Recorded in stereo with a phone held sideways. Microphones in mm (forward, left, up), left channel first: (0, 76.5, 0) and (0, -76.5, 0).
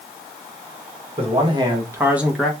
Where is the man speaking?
40° right (ahead or behind), 1.2 m; by 2.5 s 5° left (ahead or behind), 0.8 m.